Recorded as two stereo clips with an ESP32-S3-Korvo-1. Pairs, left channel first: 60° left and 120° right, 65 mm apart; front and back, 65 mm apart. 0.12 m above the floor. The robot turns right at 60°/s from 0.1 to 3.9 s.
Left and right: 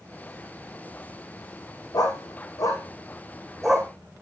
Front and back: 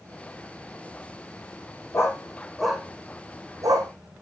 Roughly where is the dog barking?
Ahead left.